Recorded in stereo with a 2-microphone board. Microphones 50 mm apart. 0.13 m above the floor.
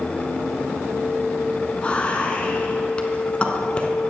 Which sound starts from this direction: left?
Whispering, at 1.8 s.